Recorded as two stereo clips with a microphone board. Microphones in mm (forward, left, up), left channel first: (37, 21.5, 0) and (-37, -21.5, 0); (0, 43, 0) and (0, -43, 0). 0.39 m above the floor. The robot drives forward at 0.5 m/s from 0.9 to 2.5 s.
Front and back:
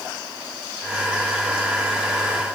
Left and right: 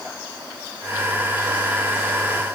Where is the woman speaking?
No woman speaking in this recording.